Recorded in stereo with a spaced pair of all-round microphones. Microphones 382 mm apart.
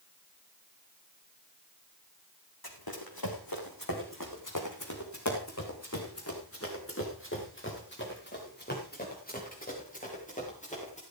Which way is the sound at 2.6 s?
70° left (ahead or behind).